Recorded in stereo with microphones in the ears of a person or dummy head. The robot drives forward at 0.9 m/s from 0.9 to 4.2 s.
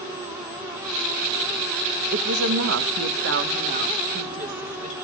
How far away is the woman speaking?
About 1.1 m.